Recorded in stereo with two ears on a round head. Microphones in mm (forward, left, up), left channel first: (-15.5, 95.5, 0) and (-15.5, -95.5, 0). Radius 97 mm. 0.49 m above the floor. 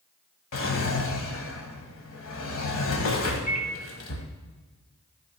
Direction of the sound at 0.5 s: 70° left (ahead or behind).